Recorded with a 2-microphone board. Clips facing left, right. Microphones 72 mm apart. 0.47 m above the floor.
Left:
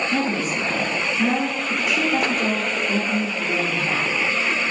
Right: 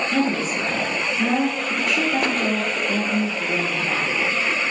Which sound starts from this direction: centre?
A woman speaking, at 0.1 s.